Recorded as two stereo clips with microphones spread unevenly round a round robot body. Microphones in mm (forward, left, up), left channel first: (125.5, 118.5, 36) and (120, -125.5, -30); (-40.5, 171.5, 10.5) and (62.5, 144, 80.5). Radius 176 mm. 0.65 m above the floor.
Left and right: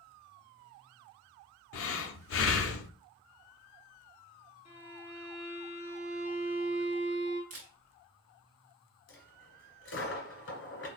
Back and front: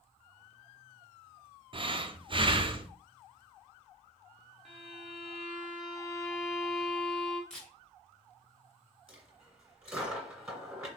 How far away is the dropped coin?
About 2.5 m.